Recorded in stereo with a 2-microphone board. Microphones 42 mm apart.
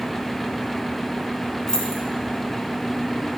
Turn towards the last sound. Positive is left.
turn(degrees=15)  # may be behind; listen again after turning